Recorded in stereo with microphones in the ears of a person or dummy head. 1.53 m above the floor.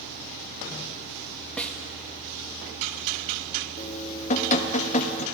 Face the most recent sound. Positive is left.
turn(degrees=35)  # may be behind; listen again after turning